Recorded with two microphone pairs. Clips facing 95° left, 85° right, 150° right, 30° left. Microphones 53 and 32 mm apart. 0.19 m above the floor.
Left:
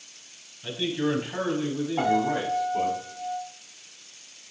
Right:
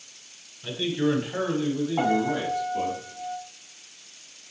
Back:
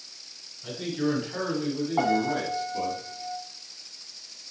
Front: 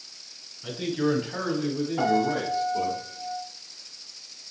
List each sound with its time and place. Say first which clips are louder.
0.6 s a man speaking: right 2 dB, front 2 dB; 10° left, 1.4 m; by 3.0 s 135° left, 1.8 m
2.0 s a piano: left 2 dB, front 1 dB; 165° right, 3 m